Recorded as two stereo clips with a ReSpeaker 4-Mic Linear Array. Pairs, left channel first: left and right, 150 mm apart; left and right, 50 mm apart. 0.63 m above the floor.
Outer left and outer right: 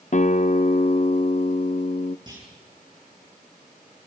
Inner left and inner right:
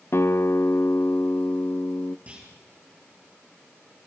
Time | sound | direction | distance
0.1 | a guitar | 55° left (ahead or behind) | 0.5 m
2.3 | a clunk | 30° right (ahead or behind) | 7 m